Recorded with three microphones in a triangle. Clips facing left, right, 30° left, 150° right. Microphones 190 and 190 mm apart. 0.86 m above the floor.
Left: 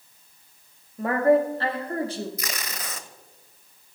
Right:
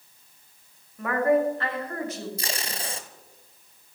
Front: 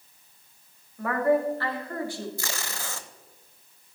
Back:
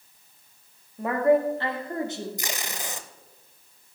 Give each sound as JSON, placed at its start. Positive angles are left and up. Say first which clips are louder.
{"t": 1.0, "sound": "a woman speaking", "louder": "left 2 dB, back 3 dB", "azimuth_deg": 145, "distance_m": 1.6}
{"t": 2.4, "sound": "tape being pulled", "louder": "right 2 dB, back 2 dB", "azimuth_deg": -95, "distance_m": 0.7}